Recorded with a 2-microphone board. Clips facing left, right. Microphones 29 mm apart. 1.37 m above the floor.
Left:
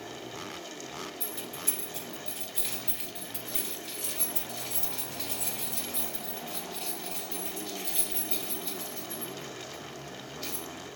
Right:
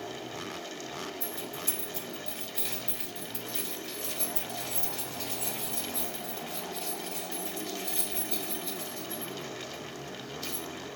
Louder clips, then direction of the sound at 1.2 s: Right 1 dB; 65° left (ahead or behind).